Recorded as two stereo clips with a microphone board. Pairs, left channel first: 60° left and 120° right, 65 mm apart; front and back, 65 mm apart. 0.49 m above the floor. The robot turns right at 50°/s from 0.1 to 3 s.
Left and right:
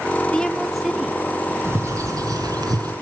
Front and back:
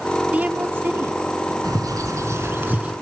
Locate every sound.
0.3 s a woman speaking: 125° left, 1.1 m; by 1.5 s 170° right, 1.1 m
1.6 s a bird: 170° right, 1.9 m; by 2.9 s 110° right, 1.9 m